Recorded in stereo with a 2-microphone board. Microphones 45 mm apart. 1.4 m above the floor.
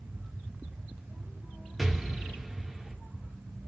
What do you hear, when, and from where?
1.8 s an explosion: 5° right (ahead or behind), 0.6 m